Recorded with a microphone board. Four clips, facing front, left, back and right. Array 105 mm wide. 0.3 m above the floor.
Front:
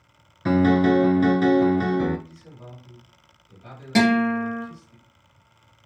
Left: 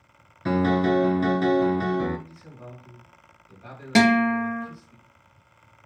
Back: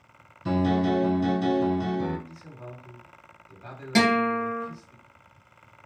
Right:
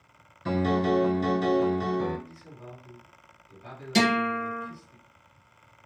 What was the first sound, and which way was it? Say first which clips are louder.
A piano: left 3 dB, front 6 dB; 25° left.